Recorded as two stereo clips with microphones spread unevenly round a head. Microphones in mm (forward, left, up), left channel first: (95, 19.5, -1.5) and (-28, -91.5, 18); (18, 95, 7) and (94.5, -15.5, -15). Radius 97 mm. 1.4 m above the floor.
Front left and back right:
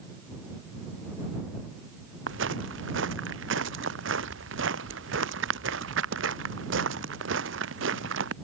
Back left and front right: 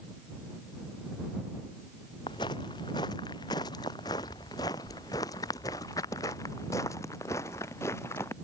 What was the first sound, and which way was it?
Footsteps, 165° right.